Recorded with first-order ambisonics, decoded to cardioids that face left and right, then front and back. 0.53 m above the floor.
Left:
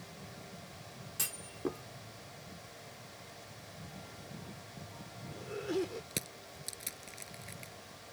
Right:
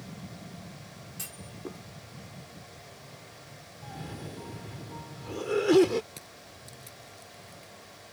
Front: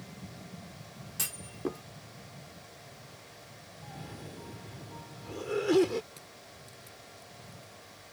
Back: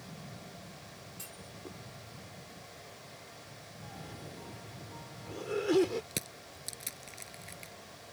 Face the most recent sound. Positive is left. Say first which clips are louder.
# left 4 dB, back 7 dB
turn(degrees=145)